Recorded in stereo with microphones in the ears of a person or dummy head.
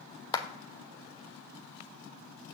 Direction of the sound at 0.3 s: 20° left (ahead or behind).